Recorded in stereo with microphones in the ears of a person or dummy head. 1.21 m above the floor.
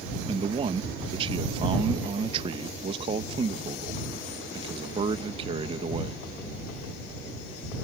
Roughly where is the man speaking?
Right.